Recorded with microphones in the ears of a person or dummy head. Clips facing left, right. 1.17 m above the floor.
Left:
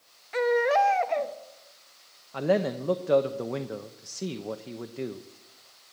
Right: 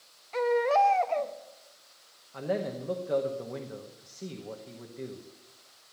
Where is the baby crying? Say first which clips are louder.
Left 2 dB; 20° left (ahead or behind), 0.7 m.